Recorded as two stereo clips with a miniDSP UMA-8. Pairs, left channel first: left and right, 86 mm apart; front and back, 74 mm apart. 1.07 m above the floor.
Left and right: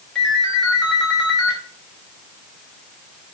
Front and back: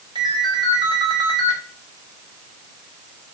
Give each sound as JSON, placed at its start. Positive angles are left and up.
{"t": 0.1, "sound": "a ringtone", "azimuth_deg": 170, "distance_m": 4.0}